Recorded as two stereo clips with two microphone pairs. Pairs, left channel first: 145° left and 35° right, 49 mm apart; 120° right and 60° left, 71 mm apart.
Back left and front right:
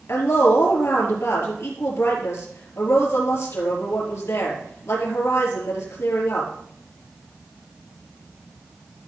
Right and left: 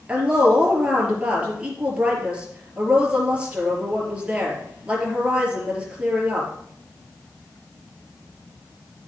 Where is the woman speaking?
130° left, 5 m.